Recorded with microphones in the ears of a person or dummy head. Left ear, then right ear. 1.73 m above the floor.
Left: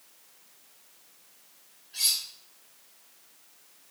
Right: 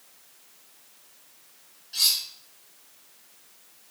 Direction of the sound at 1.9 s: 70° right (ahead or behind).